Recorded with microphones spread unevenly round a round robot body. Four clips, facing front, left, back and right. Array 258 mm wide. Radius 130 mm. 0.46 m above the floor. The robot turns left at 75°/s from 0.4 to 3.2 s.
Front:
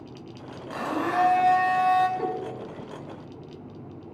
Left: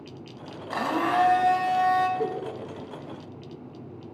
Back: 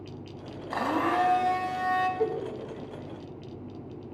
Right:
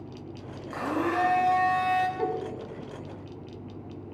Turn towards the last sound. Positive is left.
turn(degrees=-130)